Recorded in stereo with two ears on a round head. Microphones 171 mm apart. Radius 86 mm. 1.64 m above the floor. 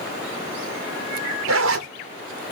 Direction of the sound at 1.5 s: 75° right (ahead or behind).